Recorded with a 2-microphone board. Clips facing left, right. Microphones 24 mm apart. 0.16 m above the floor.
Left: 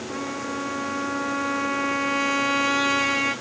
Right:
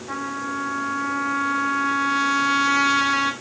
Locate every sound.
0.1 s a trumpet: 55° right (ahead or behind), 6 m